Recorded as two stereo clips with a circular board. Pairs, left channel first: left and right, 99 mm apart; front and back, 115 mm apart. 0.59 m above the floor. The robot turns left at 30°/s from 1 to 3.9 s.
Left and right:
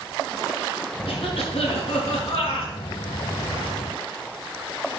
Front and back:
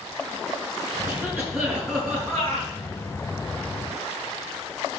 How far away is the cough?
About 6.5 m.